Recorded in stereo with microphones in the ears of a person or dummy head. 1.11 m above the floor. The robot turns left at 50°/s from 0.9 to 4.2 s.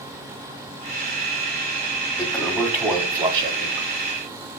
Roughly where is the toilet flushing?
Ahead.